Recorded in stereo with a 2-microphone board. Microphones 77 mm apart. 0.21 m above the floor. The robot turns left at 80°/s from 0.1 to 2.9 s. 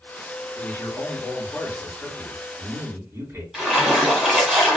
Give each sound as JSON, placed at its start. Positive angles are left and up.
{"t": 0.6, "sound": "a man speaking", "azimuth_deg": 130, "distance_m": 1.9}
{"t": 3.5, "sound": "a splash", "side_deg": -5, "distance_m": 1.3}